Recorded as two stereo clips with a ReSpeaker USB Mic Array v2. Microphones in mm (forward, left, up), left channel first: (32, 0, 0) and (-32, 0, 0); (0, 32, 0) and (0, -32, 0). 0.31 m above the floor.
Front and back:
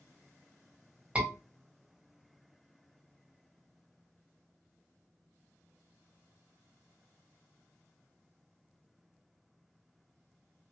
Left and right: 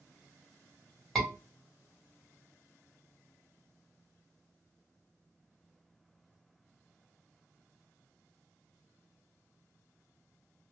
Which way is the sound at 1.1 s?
160° left.